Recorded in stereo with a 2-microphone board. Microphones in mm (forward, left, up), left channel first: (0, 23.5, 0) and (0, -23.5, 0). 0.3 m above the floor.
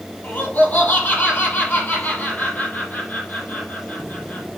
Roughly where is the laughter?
Left.